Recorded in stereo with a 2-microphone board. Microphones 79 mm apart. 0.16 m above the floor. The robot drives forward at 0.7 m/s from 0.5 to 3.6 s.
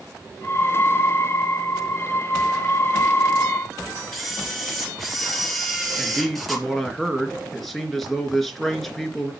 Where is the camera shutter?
Centre (ahead or behind), 3 m.